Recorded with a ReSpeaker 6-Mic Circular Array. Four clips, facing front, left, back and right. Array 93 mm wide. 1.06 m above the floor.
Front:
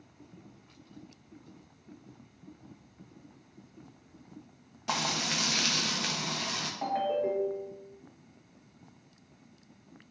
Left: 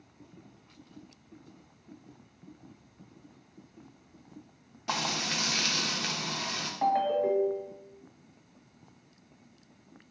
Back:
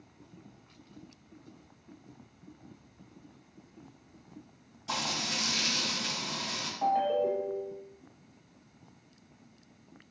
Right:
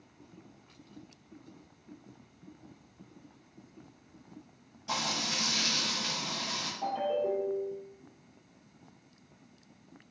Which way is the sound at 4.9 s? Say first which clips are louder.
Left 2 dB, front 3 dB; 40° left.